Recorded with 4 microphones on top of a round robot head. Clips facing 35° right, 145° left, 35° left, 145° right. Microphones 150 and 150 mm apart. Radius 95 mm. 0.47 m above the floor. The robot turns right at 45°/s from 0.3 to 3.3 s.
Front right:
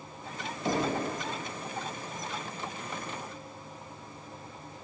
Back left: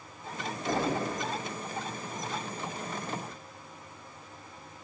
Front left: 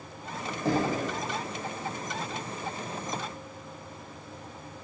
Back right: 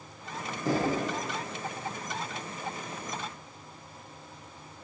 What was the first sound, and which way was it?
Knocking, 20° left.